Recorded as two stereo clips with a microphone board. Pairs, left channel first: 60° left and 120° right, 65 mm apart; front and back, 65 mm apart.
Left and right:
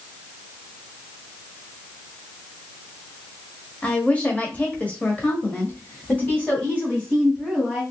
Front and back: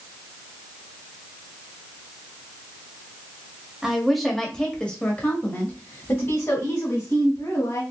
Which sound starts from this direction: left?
A woman speaking, at 3.8 s.